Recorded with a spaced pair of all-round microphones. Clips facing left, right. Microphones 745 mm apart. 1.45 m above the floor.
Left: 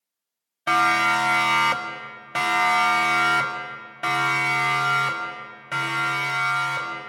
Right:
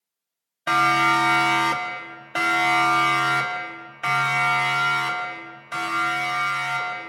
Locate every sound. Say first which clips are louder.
0.7 s a siren: right 2 dB; centre (ahead or behind), 2 m; by 7.0 s 80° left, 5 m